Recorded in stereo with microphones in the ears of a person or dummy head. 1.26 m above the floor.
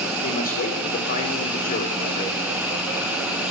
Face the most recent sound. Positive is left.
turn(degrees=45)  # may be behind; listen again after turning